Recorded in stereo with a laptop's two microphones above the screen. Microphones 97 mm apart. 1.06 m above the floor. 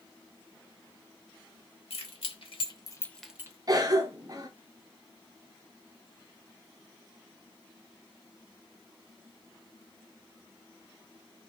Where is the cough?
40° right (ahead or behind), 0.7 m.